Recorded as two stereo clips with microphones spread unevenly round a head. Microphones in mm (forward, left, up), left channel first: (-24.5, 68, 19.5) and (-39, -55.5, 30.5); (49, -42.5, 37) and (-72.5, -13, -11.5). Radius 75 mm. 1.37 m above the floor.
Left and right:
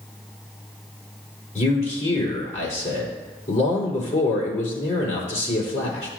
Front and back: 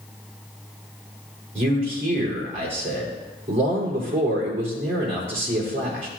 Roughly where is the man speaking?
Behind left.